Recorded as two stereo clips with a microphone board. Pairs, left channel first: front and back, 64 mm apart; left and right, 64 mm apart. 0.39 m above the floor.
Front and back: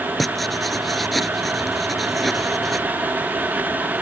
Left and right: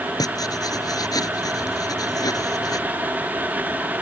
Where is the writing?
90° left.